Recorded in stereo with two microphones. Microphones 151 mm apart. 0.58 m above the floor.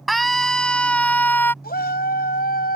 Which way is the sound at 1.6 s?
70° left (ahead or behind).